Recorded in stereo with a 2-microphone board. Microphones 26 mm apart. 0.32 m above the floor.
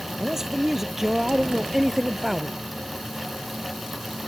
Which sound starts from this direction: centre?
A man speaking, at 0.2 s.